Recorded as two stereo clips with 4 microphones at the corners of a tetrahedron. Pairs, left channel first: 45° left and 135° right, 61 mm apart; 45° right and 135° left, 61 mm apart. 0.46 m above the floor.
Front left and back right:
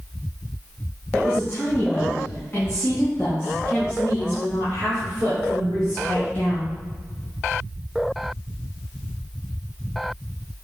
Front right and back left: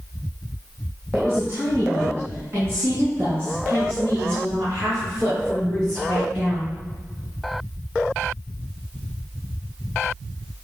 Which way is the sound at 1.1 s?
95° left.